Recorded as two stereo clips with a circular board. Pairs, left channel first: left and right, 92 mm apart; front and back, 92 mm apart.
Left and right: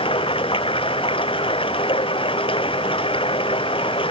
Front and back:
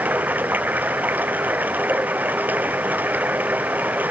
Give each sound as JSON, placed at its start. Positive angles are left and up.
{"t": 0.0, "sound": "running water", "azimuth_deg": 105}